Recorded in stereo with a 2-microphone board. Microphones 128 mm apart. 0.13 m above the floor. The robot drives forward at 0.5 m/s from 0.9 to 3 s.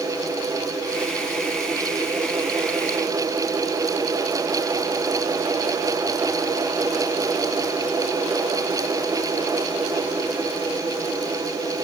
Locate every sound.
Only background noise.